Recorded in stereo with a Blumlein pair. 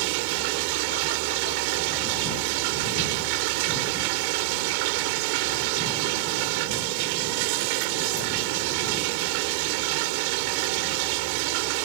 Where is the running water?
45° right.